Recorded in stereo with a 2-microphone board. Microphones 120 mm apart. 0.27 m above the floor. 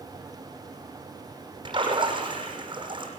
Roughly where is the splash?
Right.